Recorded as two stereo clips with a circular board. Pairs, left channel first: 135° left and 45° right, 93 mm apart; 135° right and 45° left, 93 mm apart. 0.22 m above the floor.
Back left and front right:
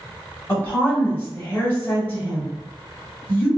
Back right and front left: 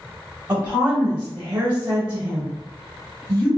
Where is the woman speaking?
90° left, 1.0 m.